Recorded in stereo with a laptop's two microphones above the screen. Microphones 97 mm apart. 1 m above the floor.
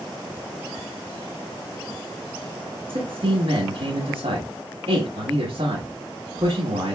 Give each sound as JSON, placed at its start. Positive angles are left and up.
{"t": 2.9, "sound": "a man speaking", "side_deg": -80, "distance_m": 1.4}